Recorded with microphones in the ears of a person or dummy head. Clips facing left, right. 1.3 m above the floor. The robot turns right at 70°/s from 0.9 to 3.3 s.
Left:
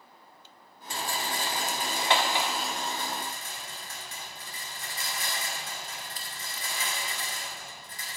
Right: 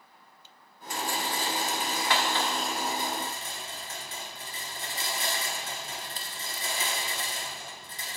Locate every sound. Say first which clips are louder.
0.9 s a rattle: right 2 dB; 55° left, 1.0 m; by 8.2 s 140° right, 1.0 m